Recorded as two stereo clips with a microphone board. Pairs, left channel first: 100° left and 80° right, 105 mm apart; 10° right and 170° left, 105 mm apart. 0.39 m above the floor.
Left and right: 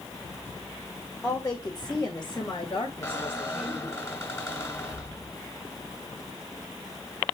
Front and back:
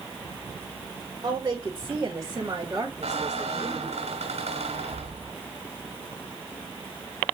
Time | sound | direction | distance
1.2 | a woman speaking | 150° left | 1.7 m
3.0 | a squeak | 160° left | 1.8 m